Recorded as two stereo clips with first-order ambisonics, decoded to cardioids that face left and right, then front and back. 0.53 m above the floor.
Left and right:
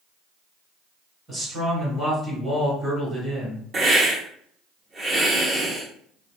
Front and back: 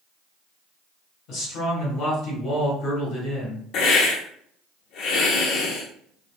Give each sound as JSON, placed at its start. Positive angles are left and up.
{"t": 1.3, "sound": "a man speaking", "azimuth_deg": -10, "distance_m": 1.5}
{"t": 3.7, "sound": "a hiss", "azimuth_deg": -25, "distance_m": 0.6}